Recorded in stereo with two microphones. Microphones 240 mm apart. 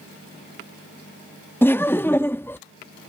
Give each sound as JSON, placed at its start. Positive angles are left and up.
{"t": 1.6, "sound": "laughter", "side_deg": 10}